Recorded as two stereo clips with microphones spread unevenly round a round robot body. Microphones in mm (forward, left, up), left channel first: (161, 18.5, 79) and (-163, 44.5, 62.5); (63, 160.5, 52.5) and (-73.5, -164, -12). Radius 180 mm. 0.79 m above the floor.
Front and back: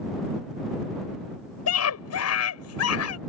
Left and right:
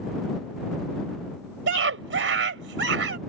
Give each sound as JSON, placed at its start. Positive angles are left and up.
{"t": 1.7, "sound": "a scream", "azimuth_deg": -55}